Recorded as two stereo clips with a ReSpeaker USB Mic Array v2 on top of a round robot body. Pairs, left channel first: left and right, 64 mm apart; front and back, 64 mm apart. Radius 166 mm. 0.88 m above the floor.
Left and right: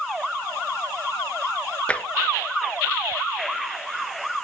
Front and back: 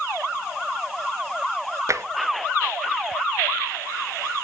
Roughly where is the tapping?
Behind left.